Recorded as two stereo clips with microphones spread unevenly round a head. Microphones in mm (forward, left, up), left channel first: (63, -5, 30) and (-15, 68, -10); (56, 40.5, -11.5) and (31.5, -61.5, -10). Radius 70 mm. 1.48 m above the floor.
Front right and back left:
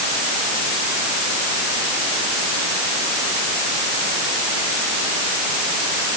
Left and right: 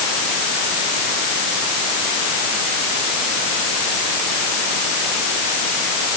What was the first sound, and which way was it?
Only background noise.